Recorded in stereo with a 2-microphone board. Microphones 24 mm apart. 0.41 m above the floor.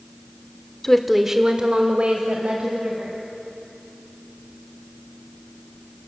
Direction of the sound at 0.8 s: 15° left (ahead or behind).